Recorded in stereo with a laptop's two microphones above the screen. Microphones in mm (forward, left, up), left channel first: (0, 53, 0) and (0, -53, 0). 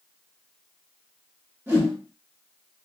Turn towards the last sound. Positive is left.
turn(degrees=-20)  # may be behind; listen again after turning